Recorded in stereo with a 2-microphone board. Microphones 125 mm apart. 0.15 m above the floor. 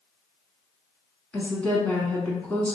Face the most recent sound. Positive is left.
turn(degrees=10)  # may be behind; listen again after turning